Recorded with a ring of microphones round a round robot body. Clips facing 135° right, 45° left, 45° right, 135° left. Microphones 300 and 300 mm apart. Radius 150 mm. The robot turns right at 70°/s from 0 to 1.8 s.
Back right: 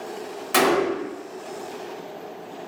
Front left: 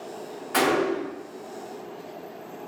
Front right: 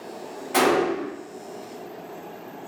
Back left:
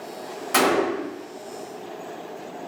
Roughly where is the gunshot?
Behind.